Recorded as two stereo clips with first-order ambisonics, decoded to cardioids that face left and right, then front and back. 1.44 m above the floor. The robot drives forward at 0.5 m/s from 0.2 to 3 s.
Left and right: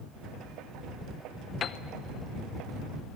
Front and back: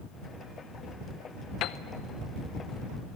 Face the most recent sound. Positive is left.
turn(degrees=130)